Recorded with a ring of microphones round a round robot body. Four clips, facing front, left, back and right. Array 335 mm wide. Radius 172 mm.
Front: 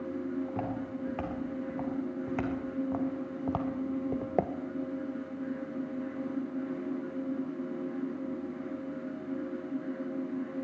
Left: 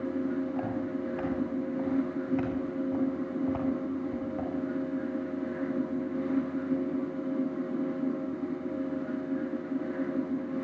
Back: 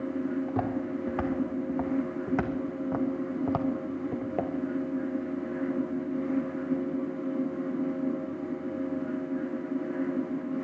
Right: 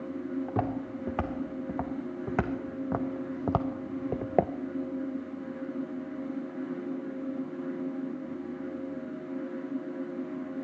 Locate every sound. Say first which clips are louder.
0.5 s footsteps: even, back 5 dB; 110° right, 3 m; by 4.5 s 65° right, 0.5 m